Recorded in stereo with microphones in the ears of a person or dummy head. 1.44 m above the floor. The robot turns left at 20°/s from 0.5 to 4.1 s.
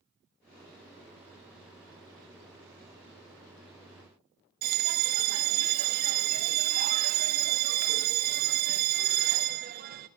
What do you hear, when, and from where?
4.6 s a bell: 45° right (ahead or behind), 0.5 m